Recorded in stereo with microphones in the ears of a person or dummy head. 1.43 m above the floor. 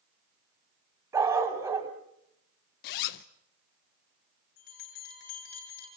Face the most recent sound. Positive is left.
turn(degrees=55)  # may be behind; listen again after turning